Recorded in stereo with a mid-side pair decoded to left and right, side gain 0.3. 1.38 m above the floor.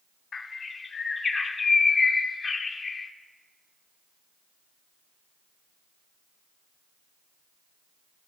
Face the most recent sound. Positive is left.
turn(degrees=60)